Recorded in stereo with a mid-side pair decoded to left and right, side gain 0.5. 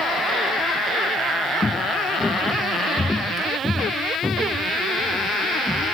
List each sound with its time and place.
1.6 s footsteps: 15° left; by 6.0 s straight ahead